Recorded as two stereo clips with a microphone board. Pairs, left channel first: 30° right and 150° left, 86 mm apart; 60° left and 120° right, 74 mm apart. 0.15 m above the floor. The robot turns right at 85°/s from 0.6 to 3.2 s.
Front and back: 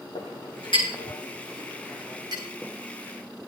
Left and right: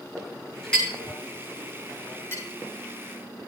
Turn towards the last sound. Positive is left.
turn(degrees=-170)